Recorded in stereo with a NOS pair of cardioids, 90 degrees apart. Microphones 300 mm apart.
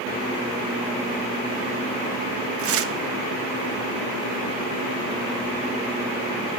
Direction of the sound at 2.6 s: 45° right.